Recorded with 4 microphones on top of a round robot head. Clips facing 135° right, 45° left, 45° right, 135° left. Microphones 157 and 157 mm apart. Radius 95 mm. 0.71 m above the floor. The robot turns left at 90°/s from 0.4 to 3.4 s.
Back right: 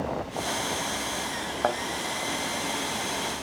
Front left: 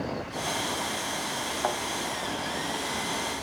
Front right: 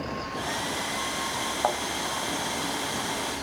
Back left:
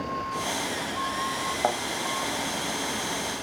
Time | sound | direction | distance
1.6 | a thud | 150° right | 0.6 m